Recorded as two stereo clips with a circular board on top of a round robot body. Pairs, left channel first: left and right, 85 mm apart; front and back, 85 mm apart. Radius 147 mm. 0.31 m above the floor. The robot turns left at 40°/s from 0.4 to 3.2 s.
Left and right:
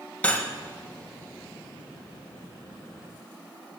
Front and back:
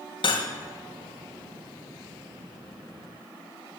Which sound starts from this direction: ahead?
Cutlery clinking, at 0.2 s.